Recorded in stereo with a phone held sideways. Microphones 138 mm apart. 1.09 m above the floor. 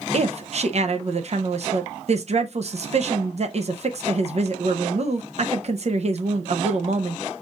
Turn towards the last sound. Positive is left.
turn(degrees=-50)  # may be behind; listen again after turning